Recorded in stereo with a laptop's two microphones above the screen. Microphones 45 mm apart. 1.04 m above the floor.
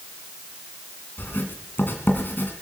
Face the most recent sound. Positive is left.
turn(degrees=50)  # may be behind; listen again after turning